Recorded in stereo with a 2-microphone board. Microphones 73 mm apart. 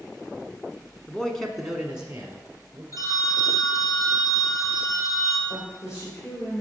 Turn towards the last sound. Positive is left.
turn(degrees=35)  # may be behind; listen again after turning